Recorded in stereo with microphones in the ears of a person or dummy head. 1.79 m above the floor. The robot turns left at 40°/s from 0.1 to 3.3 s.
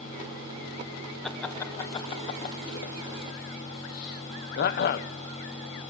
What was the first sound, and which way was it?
Laughter, 5° left (ahead or behind).